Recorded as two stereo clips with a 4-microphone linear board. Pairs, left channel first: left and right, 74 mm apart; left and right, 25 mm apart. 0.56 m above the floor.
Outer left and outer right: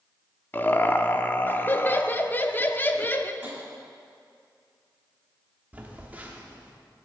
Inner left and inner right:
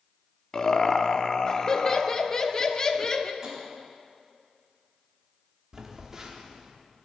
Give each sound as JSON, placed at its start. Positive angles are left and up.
{"t": 0.5, "sound": "laughter", "side_deg": 25, "distance_m": 0.7}
{"t": 3.4, "sound": "tapping", "side_deg": -20, "distance_m": 4.0}
{"t": 5.7, "sound": "a phone buzzing", "side_deg": -20, "distance_m": 1.3}